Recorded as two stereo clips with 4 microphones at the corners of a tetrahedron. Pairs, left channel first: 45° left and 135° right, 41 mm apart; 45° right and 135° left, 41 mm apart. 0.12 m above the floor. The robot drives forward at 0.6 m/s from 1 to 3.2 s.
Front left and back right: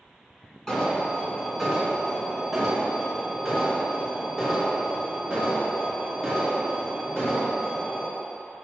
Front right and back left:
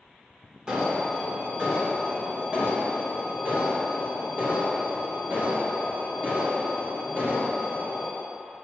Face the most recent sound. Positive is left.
turn(degrees=155)